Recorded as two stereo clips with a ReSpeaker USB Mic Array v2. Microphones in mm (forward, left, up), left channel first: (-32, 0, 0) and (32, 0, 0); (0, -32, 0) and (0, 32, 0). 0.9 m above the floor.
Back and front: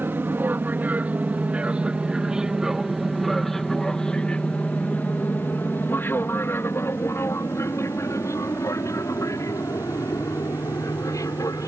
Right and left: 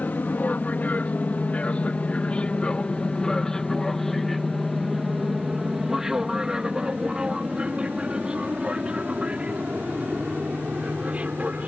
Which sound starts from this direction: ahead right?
An aircraft, at 0.0 s.